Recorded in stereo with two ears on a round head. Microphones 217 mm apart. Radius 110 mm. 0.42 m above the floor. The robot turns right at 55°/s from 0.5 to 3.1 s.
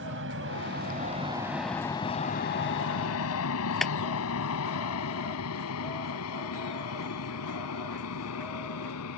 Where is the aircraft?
50° right (ahead or behind); by 9.2 s 70° left (ahead or behind).